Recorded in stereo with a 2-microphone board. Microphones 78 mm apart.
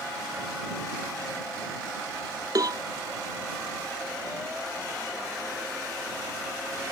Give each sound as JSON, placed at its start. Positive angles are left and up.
{"t": 2.5, "sound": "a cowbell", "side_deg": -55}